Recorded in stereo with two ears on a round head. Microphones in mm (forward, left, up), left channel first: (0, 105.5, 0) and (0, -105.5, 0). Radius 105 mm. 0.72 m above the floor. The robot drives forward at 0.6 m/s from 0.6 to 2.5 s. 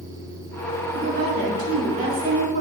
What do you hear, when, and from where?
0.9 s a woman speaking: 40° right (ahead or behind), 2 m; by 2.6 s 30° right (ahead or behind), 2.5 m